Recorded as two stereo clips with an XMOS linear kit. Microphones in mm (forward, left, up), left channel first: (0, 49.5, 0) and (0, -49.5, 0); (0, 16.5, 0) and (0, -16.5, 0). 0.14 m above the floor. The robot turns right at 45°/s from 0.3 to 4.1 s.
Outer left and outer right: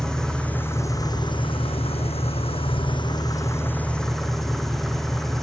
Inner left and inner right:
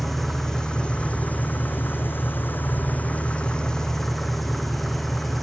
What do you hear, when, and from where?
0.0 s an engine running: 5° left, 3 m; by 5.4 s 175° left, 3 m